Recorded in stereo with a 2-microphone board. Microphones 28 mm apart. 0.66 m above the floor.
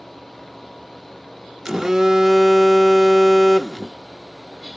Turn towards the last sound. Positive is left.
turn(degrees=-15)  # may be behind; listen again after turning